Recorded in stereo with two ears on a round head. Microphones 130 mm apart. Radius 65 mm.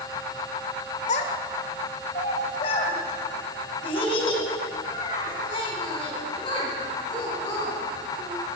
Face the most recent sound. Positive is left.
turn(degrees=35)  # may be behind; listen again after turning